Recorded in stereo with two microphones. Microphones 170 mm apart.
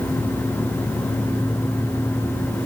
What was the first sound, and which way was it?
Only background noise.